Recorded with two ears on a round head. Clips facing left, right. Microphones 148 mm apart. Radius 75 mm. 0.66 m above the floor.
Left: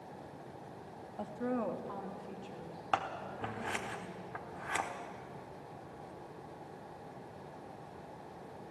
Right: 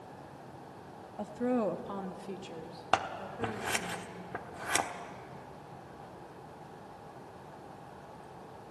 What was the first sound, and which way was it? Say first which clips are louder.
A woman speaking: right 5 dB; 10° right (ahead or behind).